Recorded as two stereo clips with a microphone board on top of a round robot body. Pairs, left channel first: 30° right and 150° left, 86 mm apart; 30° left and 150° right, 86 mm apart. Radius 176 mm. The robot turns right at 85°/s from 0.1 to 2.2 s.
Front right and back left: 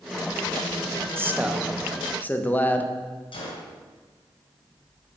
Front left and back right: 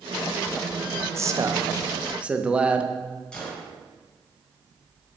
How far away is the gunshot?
About 1.8 m.